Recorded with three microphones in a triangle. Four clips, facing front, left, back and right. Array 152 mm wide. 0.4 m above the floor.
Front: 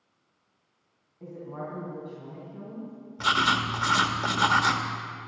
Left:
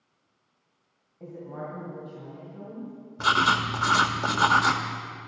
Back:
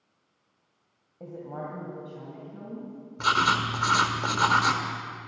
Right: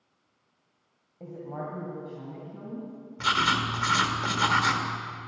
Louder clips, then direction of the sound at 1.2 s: Right 1 dB, back 1 dB; 150° right.